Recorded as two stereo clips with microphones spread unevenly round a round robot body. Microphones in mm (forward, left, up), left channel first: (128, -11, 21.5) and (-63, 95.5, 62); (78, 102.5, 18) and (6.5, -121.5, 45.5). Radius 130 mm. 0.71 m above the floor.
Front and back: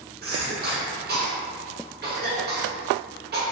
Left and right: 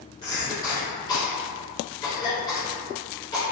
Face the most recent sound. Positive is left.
turn(degrees=125)